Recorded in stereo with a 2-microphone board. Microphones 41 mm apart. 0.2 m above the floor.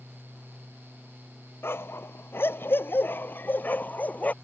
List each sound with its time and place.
1.6 s a dog barking: 80° left; by 4.3 s 45° left (ahead or behind)